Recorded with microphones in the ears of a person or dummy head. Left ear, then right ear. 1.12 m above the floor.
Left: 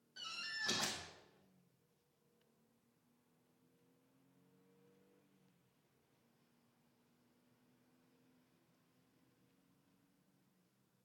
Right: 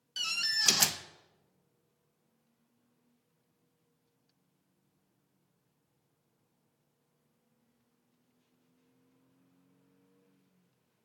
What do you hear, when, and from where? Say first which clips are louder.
0.2 s a door slam: right 14 dB; 70° right (ahead or behind), 0.7 m